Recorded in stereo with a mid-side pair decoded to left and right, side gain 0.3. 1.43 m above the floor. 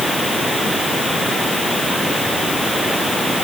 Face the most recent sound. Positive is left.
No sound to turn to.